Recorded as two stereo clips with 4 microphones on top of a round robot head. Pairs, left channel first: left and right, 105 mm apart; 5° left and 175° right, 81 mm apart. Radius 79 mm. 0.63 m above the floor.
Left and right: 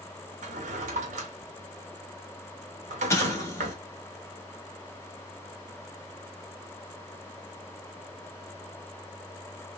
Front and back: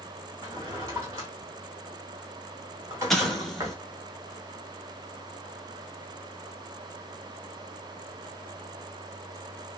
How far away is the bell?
I don't hear a bell.